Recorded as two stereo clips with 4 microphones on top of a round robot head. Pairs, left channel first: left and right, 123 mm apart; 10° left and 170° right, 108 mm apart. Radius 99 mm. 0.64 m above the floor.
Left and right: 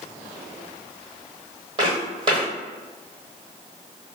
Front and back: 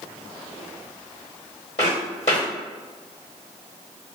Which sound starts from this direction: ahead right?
Footsteps, at 1.8 s.